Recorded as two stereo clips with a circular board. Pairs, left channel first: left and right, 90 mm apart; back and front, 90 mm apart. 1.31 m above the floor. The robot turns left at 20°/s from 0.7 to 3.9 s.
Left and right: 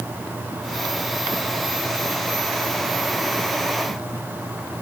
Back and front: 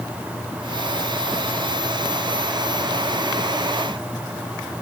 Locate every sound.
Only background noise.